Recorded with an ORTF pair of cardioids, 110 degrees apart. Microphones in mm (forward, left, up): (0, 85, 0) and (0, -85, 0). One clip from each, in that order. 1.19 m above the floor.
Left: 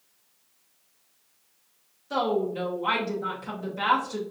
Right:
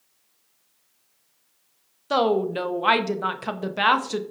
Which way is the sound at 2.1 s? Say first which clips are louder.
Right 5 dB; 55° right.